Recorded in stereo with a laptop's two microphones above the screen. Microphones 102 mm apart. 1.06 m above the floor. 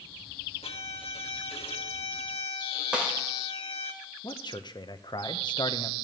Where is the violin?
75° left (ahead or behind), 1.3 m.